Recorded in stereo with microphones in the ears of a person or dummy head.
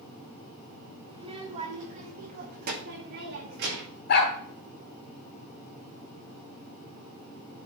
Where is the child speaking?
30° right (ahead or behind), 1.4 m; by 4.0 s 70° right (ahead or behind), 2.5 m.